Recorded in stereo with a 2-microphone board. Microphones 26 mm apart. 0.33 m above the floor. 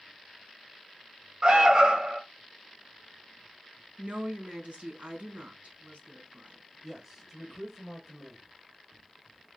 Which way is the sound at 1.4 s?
40° right (ahead or behind).